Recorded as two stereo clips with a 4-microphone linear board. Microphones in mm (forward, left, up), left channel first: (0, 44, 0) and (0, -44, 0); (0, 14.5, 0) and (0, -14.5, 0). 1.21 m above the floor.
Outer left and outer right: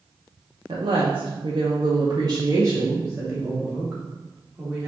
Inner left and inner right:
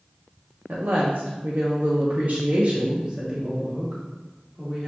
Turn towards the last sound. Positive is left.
turn(degrees=0)  # may be behind; listen again after turning